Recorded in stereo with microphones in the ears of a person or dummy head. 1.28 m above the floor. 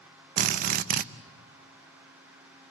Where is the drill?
55° right (ahead or behind), 0.7 m.